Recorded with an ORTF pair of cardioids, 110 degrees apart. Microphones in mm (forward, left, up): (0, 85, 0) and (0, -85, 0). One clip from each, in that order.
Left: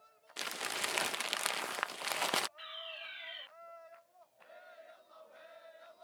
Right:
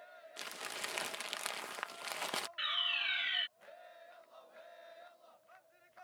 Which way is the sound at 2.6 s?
65° right.